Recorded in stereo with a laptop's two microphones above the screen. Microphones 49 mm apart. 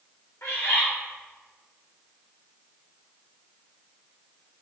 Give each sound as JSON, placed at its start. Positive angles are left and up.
{"t": 0.4, "sound": "a bird", "side_deg": 60, "distance_m": 1.2}